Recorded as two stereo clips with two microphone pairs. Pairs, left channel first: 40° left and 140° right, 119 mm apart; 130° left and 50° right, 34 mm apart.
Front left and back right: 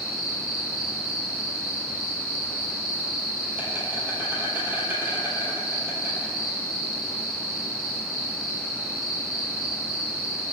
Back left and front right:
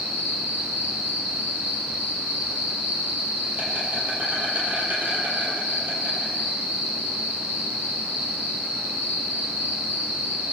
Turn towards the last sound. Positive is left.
turn(degrees=-65)